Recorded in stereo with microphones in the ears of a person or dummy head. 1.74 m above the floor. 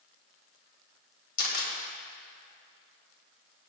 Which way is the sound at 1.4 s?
65° left (ahead or behind).